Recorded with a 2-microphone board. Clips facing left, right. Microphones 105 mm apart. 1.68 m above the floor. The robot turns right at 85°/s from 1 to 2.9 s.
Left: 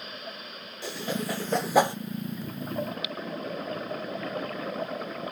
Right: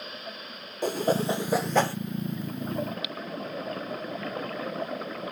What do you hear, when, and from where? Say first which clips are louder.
0.8 s a whoosh: right 7 dB; 45° right (ahead or behind), 0.6 m; by 1.9 s 25° left (ahead or behind), 0.6 m